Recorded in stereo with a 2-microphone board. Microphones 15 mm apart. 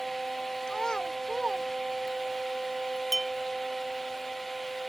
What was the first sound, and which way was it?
A child speaking, 65° left (ahead or behind).